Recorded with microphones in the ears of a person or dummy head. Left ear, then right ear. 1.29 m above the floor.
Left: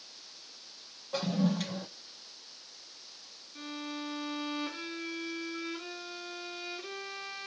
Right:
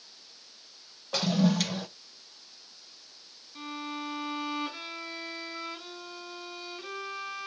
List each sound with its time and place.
1.1 s a toilet flushing: 40° right (ahead or behind), 0.5 m
3.5 s a violin: 35° right (ahead or behind), 3.5 m